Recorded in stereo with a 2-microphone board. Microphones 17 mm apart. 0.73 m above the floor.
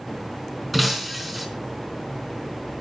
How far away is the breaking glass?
About 4 m.